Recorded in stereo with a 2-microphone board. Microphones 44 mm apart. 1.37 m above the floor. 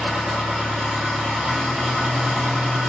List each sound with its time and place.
0.0 s an engine running: 15° right (ahead or behind), 1.8 m